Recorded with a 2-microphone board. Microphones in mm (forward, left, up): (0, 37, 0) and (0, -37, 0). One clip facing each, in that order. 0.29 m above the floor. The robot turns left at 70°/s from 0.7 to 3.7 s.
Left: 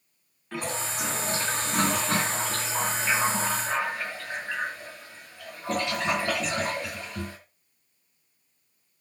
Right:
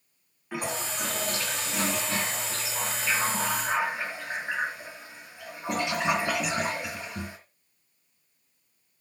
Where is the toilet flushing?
165° right, 2.5 m; by 7.4 s 15° right, 2.5 m.